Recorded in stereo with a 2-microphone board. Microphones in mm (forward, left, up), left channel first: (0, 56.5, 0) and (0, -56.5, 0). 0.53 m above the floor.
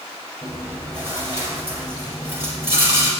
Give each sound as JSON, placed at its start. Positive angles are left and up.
{"t": 0.4, "sound": "chewing", "side_deg": -25, "distance_m": 8.0}